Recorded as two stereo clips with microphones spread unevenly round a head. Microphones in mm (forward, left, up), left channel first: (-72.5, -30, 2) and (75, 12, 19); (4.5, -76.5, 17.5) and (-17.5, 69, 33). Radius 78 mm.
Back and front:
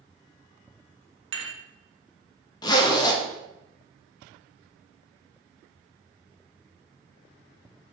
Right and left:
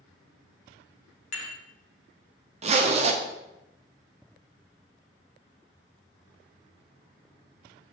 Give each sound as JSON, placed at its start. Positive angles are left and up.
{"t": 1.3, "sound": "dishes clattering", "azimuth_deg": -40, "distance_m": 0.8}
{"t": 2.6, "sound": "a zipper", "azimuth_deg": 140, "distance_m": 0.6}